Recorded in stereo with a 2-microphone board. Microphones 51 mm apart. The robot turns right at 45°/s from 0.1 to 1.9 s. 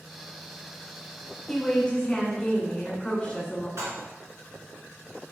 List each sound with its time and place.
1.5 s a woman speaking: centre (ahead or behind), 1.6 m; by 3.7 s 15° left (ahead or behind), 1.6 m
3.8 s dishes clattering: 65° right (ahead or behind), 1.5 m